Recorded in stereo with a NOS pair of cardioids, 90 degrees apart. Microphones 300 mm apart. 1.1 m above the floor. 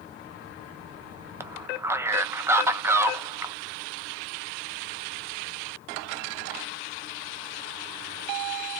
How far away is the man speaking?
About 0.5 m.